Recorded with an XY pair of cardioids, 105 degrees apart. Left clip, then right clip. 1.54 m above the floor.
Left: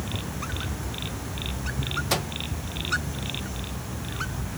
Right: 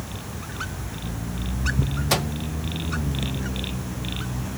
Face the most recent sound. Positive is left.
turn(degrees=-20)